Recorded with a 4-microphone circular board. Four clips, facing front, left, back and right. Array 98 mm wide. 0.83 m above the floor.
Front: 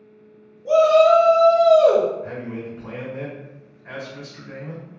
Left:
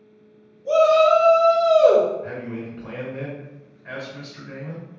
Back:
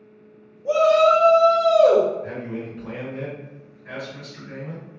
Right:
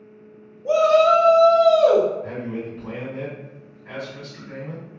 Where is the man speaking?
65° left, 1.8 m.